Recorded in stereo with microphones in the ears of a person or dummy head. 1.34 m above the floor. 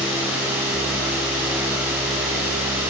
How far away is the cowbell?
I don't hear a cowbell.